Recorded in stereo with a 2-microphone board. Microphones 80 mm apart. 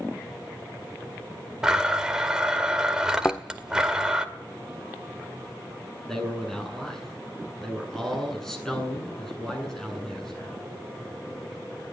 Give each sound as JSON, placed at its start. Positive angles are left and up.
{"t": 1.6, "sound": "a blender", "side_deg": -10, "distance_m": 2.0}
{"t": 3.2, "sound": "a thud", "side_deg": 20, "distance_m": 0.8}
{"t": 6.1, "sound": "a man speaking", "side_deg": 5, "distance_m": 8.5}